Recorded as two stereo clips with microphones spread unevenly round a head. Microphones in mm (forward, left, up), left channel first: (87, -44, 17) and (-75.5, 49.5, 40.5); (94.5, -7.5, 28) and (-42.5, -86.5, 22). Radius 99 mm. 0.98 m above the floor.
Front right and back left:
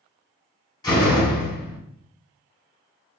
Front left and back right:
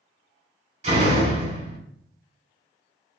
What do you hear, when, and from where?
0.8 s a door slam: 100° right, 2 m